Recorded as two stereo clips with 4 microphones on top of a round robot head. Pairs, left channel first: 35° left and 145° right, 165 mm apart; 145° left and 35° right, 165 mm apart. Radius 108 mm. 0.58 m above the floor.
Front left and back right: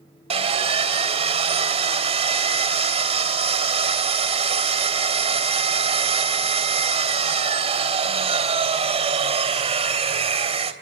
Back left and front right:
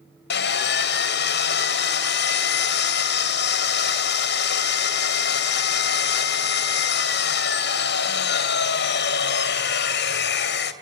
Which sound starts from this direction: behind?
Sawing, at 0.3 s.